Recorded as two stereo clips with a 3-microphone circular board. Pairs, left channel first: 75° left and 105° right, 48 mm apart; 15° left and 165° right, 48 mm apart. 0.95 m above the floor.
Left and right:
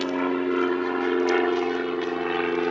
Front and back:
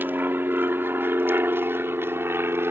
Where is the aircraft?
160° left; by 2.7 s 170° left.